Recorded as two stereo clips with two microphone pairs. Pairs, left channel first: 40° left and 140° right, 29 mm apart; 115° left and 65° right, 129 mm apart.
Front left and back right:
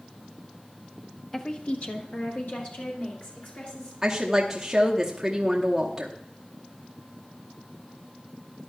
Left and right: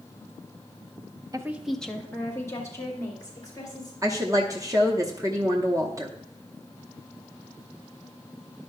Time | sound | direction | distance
1.3 | a woman speaking | 25° right | 0.7 m
4.0 | a woman speaking | 90° right | 0.9 m